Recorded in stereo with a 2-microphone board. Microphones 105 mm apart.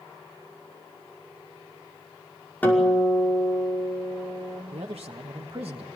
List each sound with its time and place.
2.6 s a guitar: 15° left (ahead or behind), 5.5 m
4.7 s a man speaking: 65° right (ahead or behind), 1.3 m